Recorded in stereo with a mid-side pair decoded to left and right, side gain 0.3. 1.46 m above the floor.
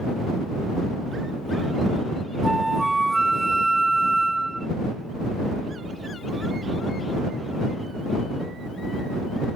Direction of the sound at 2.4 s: 20° right.